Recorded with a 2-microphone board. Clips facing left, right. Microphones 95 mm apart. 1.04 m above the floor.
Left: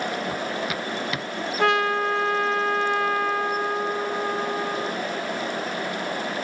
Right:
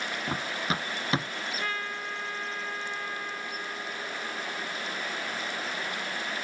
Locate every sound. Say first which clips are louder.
0.3 s running footsteps: left 4 dB; 30° right (ahead or behind)
1.6 s a trumpet: left 18 dB; 80° left